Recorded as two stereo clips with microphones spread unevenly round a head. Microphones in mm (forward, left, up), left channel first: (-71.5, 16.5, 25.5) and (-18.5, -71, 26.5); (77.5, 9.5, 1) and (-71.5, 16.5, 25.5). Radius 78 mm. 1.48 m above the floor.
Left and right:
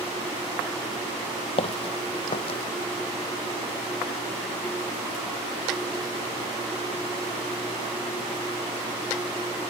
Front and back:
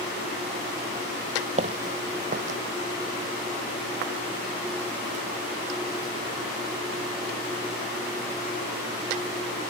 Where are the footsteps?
145° left.